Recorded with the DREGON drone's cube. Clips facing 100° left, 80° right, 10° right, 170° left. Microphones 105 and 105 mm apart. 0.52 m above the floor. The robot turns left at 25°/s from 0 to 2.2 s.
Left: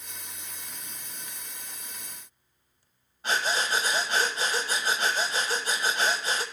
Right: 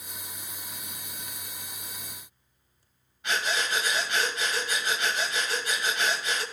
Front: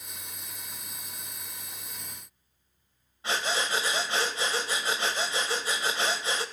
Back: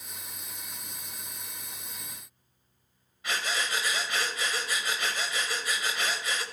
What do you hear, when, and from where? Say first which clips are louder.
3.2 s breathing: left 2 dB, front 3 dB; 50° left, 1.9 m